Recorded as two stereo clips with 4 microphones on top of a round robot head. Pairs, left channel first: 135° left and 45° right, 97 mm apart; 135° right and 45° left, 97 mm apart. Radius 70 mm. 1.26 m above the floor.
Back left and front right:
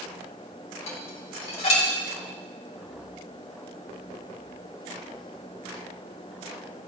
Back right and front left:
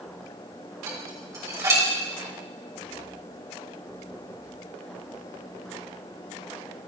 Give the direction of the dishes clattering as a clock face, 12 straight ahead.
8 o'clock.